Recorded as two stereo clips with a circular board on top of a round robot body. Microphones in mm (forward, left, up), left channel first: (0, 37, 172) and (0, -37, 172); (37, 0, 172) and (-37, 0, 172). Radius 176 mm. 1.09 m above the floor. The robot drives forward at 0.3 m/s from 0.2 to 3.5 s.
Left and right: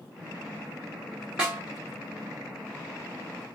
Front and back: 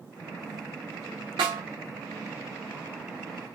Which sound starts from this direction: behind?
A snare drum, at 1.4 s.